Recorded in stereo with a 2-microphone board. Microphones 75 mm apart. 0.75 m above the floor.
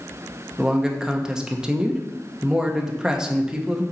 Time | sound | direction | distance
0.6 | a man speaking | 10° right (ahead or behind) | 0.7 m